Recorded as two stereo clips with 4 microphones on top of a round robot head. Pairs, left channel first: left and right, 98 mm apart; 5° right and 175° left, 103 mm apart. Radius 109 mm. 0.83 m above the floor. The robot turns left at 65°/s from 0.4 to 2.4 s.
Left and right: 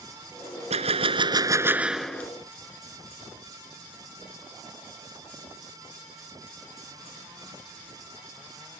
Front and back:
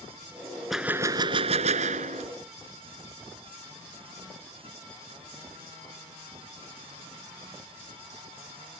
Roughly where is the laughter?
No laughter in this recording.